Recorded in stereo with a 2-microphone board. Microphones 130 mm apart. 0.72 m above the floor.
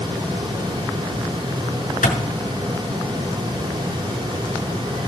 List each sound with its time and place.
2.0 s a clap: 85° left, 6.5 m